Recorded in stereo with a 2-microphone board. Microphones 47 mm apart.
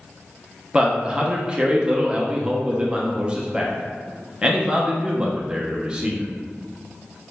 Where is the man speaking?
20° right (ahead or behind), 0.5 m.